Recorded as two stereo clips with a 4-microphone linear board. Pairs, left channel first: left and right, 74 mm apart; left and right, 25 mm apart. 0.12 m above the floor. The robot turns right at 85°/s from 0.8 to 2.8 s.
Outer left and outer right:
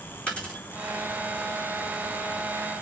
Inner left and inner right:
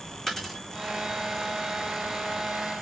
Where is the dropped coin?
15° left (ahead or behind), 4 m.